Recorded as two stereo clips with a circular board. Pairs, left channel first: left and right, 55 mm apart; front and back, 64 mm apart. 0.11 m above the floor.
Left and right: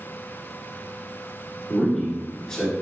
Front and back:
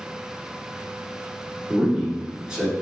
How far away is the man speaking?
About 1.1 m.